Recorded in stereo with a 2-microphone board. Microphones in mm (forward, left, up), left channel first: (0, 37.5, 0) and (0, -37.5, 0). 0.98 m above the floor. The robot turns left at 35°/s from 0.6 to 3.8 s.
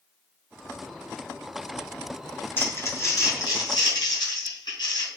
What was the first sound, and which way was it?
Crumpling, 30° left (ahead or behind).